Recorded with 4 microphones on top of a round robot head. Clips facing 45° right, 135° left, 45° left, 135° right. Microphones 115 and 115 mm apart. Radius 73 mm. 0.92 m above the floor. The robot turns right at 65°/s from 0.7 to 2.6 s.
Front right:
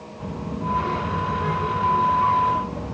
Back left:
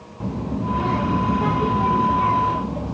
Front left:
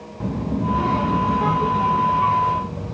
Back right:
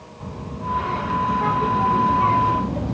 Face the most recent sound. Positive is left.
turn(degrees=-160)